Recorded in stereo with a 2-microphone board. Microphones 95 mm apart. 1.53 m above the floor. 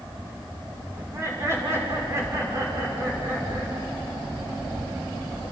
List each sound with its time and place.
1.0 s laughter: 30° right (ahead or behind), 6 m